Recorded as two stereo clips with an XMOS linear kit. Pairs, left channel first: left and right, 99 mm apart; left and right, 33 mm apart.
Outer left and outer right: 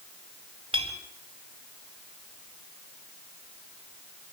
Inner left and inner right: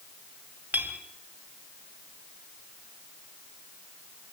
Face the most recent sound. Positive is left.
turn(degrees=-60)  # may be behind; listen again after turning